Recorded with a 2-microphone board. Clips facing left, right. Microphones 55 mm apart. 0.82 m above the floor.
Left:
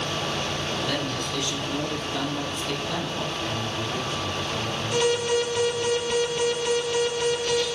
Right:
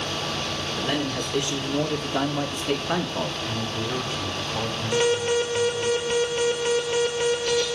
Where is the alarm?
30° right (ahead or behind), 4 m.